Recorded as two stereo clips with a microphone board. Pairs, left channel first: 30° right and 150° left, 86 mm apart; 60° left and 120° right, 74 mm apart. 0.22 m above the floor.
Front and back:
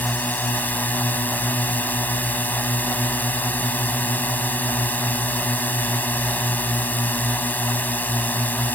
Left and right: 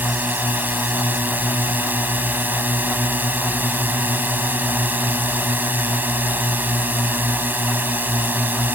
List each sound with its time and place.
0.0 s a drone: 80° right